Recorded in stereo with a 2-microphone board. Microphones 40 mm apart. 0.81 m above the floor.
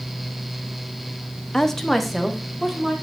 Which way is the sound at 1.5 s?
10° left (ahead or behind).